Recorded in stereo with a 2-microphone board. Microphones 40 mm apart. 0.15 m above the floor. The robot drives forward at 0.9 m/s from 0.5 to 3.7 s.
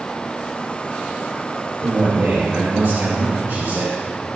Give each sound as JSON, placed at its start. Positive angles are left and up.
{"t": 1.8, "sound": "a man speaking", "side_deg": -60, "distance_m": 3.5}